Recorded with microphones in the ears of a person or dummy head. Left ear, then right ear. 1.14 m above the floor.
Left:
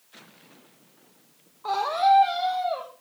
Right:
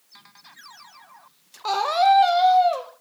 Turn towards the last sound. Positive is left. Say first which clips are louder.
# right 3 dB
turn(degrees=-70)  # may be behind; listen again after turning